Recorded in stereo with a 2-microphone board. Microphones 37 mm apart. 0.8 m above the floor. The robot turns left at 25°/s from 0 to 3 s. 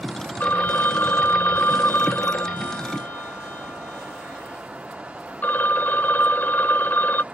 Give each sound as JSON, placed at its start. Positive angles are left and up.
{"t": 0.4, "sound": "a phone ringing", "azimuth_deg": 125}